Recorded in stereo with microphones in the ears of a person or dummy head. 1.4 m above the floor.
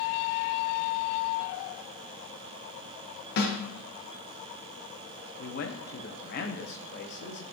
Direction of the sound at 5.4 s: 60° left (ahead or behind).